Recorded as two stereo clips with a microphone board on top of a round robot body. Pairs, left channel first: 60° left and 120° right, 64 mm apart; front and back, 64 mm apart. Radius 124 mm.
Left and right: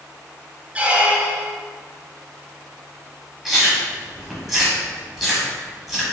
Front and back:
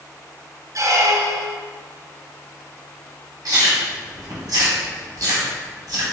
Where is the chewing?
150° left, 1.3 m.